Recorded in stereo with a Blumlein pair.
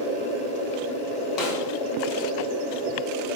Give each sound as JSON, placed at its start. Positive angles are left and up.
{"t": 1.4, "sound": "a snare drum", "azimuth_deg": 40, "distance_m": 2.0}